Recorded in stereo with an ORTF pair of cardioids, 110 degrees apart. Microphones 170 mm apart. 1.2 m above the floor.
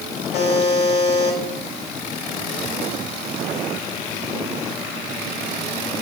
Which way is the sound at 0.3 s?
65° left.